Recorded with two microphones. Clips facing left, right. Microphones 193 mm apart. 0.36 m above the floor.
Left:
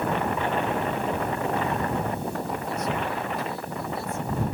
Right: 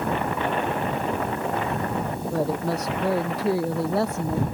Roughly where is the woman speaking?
Right.